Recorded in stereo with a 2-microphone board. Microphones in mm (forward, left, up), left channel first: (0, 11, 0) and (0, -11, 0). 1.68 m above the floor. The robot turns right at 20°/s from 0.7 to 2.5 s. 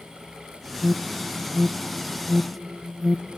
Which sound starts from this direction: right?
An alarm, at 0.8 s.